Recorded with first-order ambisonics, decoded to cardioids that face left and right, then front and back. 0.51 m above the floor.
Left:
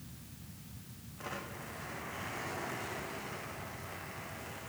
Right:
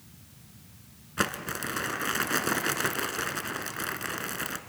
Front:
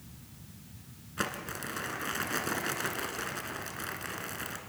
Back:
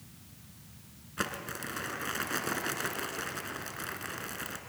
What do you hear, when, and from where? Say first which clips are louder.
1.2 s crumpling: right 13 dB, even; 90° right, 1.4 m